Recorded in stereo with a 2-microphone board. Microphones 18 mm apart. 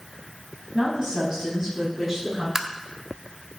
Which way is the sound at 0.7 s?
30° right (ahead or behind).